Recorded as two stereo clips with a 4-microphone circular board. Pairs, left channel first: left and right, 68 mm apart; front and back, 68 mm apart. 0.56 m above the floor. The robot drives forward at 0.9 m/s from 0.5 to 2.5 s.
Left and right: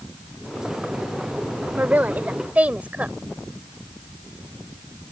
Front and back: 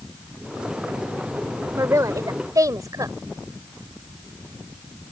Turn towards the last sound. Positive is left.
turn(degrees=-155)